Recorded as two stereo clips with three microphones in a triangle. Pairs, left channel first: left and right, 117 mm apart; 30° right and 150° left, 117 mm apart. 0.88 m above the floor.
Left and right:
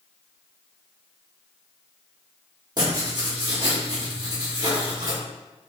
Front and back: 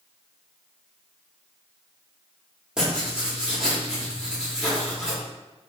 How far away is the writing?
About 1.4 m.